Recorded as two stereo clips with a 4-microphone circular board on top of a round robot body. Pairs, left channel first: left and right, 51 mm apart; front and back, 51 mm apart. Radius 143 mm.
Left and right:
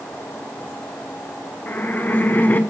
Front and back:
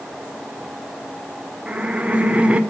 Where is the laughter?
125° left, 1.8 m.